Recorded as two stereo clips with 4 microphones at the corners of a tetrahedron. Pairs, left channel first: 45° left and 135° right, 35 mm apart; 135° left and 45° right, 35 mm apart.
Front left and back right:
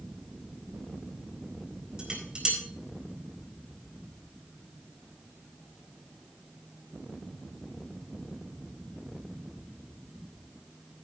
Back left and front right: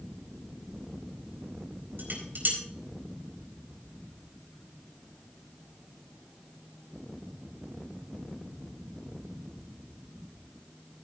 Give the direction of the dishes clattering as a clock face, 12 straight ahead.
2 o'clock.